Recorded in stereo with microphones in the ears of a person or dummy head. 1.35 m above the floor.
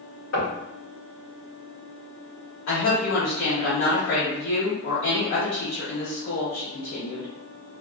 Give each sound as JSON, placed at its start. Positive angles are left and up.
{"t": 0.3, "sound": "knocking", "side_deg": 85, "distance_m": 1.9}
{"t": 2.7, "sound": "a woman speaking", "side_deg": 60, "distance_m": 1.6}